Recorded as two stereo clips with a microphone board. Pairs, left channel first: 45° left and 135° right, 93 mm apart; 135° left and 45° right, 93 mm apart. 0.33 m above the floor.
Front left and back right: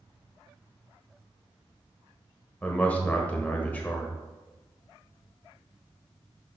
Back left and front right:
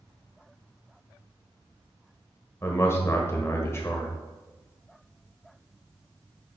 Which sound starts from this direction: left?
A man speaking, at 2.6 s.